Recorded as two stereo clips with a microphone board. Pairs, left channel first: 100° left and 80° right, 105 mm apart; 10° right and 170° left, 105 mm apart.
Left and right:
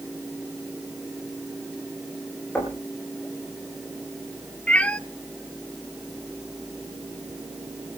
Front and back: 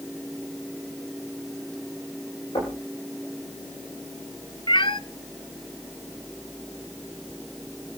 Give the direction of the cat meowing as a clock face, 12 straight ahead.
11 o'clock.